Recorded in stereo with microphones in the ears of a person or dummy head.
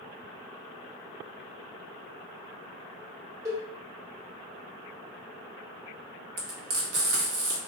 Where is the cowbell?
15° right (ahead or behind), 0.9 m.